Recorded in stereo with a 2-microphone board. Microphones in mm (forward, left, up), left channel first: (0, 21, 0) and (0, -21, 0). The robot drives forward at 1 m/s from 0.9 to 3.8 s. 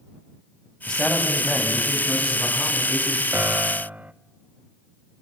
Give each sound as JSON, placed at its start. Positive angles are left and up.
{"t": 0.9, "sound": "a man speaking", "side_deg": 15, "distance_m": 5.5}
{"t": 3.3, "sound": "a piano", "side_deg": -45, "distance_m": 0.6}